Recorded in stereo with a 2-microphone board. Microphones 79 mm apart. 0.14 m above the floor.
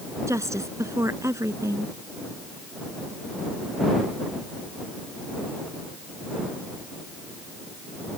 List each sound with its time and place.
0.3 s a woman speaking: 40° right (ahead or behind)